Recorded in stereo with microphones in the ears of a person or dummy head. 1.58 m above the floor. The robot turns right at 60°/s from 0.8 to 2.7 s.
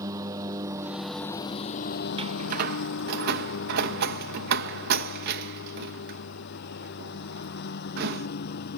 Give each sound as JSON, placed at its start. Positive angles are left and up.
{"t": 0.0, "sound": "a lawn mower", "side_deg": -15}
{"t": 2.2, "sound": "a door slam", "side_deg": -35}